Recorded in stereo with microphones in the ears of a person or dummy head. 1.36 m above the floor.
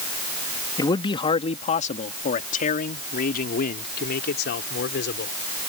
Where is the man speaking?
25° left (ahead or behind); by 5.3 s 65° left (ahead or behind).